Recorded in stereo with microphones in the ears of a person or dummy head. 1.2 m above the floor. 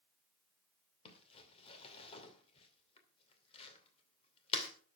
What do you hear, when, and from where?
1.1 s crumpling: 25° left (ahead or behind), 2.5 m